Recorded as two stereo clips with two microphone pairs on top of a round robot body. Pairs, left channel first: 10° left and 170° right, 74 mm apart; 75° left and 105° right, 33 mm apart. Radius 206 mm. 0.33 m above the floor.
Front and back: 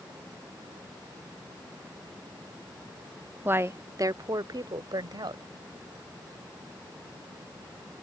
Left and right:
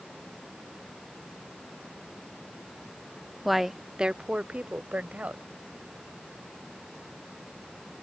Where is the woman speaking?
155° left; by 5.4 s 150° right.